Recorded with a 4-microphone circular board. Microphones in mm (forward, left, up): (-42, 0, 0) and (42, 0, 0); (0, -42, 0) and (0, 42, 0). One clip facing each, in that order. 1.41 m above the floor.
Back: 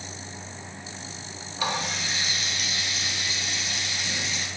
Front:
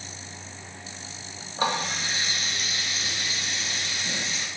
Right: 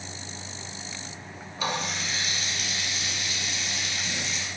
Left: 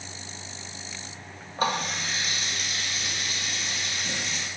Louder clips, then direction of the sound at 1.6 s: Front 2 dB, left 3 dB; 50° left.